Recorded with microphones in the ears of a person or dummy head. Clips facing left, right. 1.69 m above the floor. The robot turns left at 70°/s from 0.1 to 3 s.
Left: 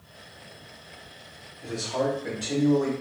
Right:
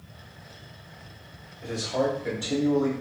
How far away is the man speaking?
About 1.0 m.